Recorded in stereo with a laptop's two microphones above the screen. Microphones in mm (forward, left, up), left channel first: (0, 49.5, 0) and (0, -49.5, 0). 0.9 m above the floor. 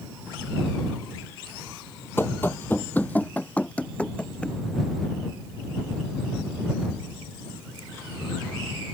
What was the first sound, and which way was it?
Running footsteps, 20° left (ahead or behind).